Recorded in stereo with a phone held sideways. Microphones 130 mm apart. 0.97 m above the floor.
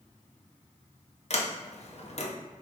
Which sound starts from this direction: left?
A sliding door, at 1.3 s.